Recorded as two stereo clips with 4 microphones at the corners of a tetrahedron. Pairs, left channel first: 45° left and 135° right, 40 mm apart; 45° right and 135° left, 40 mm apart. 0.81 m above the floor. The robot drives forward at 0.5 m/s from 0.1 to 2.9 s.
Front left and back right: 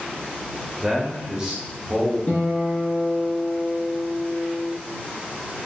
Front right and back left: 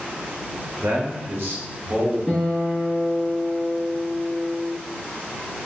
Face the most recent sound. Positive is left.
turn(degrees=75)